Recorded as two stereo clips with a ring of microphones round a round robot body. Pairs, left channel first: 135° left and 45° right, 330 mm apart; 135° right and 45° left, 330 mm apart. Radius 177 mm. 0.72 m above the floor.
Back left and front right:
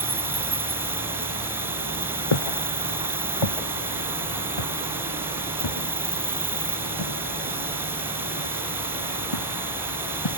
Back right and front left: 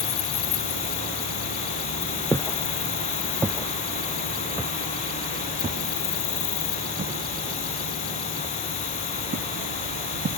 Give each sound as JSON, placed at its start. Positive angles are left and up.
{"t": 0.0, "sound": "an insect", "azimuth_deg": -130}
{"t": 2.3, "sound": "footsteps", "azimuth_deg": 145}